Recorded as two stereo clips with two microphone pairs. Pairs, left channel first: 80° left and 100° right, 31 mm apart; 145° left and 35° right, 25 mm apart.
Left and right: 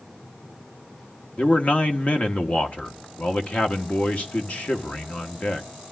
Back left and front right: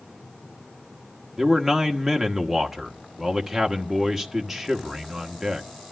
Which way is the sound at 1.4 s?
45° left.